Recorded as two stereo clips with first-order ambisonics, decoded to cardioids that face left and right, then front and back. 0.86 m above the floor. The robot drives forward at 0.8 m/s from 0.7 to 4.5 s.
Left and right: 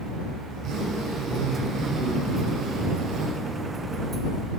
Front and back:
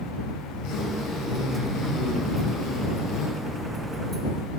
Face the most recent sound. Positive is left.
turn(degrees=-65)